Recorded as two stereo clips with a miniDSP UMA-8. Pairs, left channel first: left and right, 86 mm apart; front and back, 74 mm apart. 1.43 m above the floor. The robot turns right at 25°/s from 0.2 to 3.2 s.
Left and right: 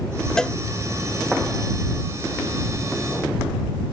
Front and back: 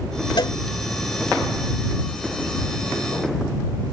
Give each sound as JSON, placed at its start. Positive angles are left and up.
{"t": 0.4, "sound": "a cowbell", "azimuth_deg": 10}